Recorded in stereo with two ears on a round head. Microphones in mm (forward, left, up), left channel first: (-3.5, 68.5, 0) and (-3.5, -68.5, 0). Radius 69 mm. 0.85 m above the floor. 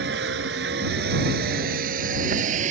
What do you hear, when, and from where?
0.0 s a vehicle: 80° right; by 2.7 s 50° right (ahead or behind)